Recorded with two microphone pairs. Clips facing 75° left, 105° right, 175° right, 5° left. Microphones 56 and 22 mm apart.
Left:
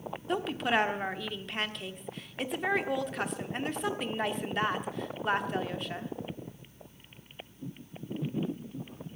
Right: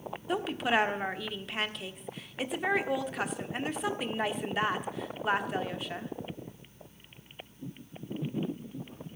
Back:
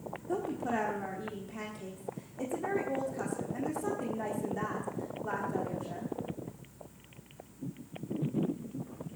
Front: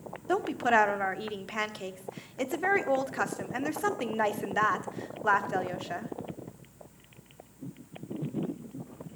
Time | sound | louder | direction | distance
0.3 | a woman speaking | even, front 8 dB | 15° right | 1.2 m